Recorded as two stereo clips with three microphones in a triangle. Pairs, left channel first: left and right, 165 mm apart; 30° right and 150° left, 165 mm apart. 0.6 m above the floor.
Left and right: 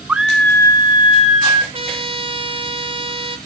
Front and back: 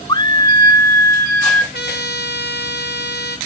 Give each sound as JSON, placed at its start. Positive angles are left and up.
{"t": 0.1, "sound": "a scream", "azimuth_deg": -20, "distance_m": 0.6}
{"t": 1.7, "sound": "a trumpet", "azimuth_deg": -35, "distance_m": 0.9}